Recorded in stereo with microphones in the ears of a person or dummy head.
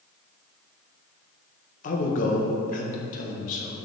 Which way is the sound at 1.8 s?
50° left (ahead or behind).